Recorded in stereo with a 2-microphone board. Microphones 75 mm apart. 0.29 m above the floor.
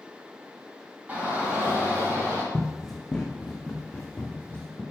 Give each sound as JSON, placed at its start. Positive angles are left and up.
{"t": 1.1, "sound": "a shout", "side_deg": -25, "distance_m": 3.0}
{"t": 2.5, "sound": "running footsteps", "side_deg": -10, "distance_m": 0.8}